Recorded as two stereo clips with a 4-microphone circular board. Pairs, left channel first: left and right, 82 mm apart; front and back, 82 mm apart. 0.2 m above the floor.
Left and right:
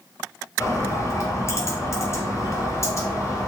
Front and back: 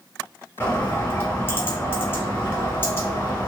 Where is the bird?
55° left, 0.8 m.